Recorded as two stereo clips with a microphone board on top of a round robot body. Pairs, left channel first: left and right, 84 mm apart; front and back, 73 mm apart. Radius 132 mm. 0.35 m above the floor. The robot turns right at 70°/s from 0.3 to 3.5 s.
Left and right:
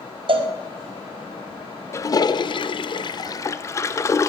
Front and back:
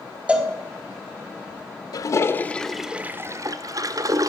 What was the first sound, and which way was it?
A cowbell, 105° right.